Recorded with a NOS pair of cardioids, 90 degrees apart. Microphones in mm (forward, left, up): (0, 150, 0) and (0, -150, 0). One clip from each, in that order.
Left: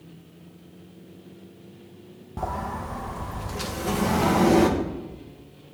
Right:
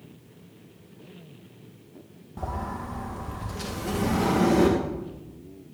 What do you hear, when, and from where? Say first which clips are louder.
2.4 s a sliding door: left 3 dB; 35° left, 2.5 m